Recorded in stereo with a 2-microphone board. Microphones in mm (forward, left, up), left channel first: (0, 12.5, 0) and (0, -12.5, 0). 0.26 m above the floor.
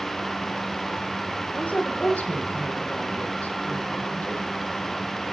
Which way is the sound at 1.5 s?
80° left.